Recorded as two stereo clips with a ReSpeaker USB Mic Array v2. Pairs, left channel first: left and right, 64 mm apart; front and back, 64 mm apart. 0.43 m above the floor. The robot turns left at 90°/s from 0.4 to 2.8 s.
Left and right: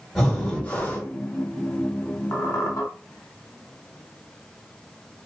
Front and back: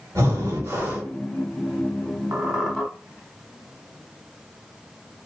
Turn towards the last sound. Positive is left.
turn(degrees=80)